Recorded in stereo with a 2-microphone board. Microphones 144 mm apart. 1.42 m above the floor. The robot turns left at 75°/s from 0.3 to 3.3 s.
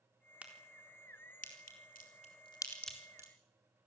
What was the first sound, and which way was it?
A crack, 10° right (ahead or behind).